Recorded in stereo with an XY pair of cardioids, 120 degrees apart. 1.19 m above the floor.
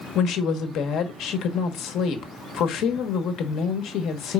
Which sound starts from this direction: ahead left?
A woman speaking, at 0.1 s.